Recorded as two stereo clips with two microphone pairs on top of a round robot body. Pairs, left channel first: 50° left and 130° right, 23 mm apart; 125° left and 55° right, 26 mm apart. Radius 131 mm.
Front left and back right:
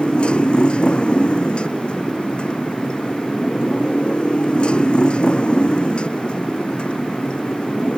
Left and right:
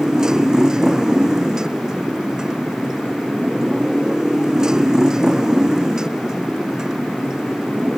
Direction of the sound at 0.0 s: 10° left.